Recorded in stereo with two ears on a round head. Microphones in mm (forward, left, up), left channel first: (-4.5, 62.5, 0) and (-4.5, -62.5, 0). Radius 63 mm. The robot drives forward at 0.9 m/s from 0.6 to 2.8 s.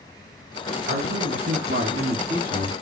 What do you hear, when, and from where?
0.9 s a man speaking: 80° right, 3.5 m; by 2.7 s 75° right (ahead or behind), 3.5 m